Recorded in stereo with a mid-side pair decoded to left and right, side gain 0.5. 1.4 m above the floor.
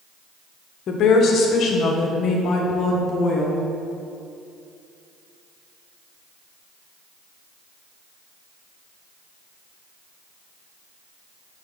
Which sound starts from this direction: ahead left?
A woman speaking, at 0.9 s.